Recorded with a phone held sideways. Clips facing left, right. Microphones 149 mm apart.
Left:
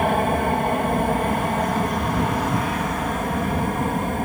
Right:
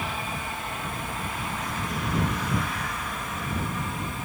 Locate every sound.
0.0 s an aircraft: 60° left (ahead or behind); by 4.3 s 55° left (ahead or behind)